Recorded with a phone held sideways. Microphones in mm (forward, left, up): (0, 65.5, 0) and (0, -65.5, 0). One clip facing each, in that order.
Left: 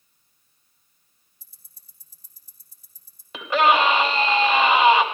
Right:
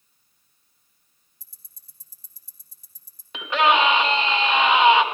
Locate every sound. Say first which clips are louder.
1.4 s ticking: right 3 dB; 85° right, 3 m
3.3 s a scream: left 1 dB; centre (ahead or behind), 4 m